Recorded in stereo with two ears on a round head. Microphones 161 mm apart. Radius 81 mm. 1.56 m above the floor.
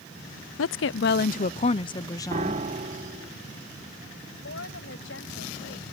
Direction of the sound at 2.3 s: 40° right (ahead or behind).